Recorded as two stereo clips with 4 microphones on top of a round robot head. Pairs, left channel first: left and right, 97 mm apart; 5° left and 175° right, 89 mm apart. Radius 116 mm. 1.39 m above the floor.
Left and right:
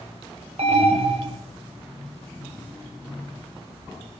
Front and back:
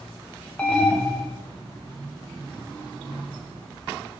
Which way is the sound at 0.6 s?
75° right.